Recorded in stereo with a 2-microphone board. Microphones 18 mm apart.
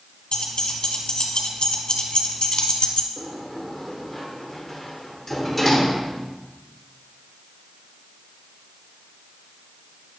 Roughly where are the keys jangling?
Left.